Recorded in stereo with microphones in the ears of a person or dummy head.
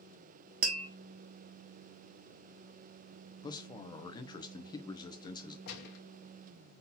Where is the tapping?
45° right (ahead or behind), 0.7 m.